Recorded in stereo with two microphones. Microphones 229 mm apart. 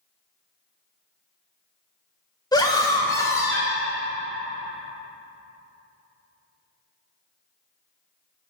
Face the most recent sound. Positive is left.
turn(degrees=10)  # may be behind; listen again after turning